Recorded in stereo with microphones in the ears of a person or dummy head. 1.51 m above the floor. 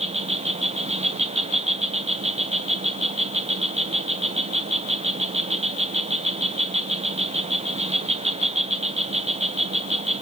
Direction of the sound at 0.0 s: 35° right (ahead or behind).